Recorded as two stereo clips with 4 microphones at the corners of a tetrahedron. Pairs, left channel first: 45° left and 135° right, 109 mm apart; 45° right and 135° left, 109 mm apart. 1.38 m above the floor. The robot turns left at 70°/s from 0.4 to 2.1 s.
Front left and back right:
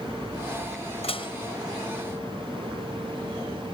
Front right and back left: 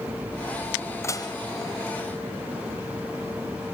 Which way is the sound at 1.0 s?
20° left.